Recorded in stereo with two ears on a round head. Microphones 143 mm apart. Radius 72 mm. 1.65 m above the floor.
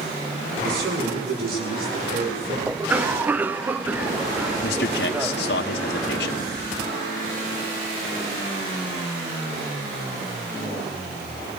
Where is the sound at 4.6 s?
75° left (ahead or behind), 1.1 m.